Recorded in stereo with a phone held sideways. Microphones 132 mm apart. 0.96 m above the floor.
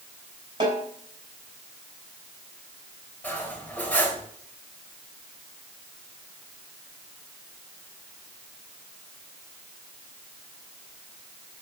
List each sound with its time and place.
0.6 s a snare drum: 40° right (ahead or behind), 4 m
3.2 s cutlery clinking: 10° left (ahead or behind), 3 m